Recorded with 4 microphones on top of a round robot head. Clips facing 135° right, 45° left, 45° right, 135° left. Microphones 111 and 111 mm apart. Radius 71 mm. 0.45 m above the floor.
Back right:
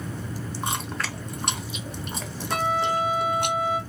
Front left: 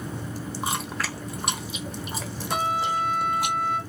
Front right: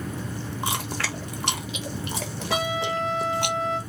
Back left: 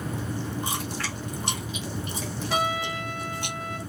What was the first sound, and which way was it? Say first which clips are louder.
Chewing: front left 1 dB, front right 2 dB; 40° right.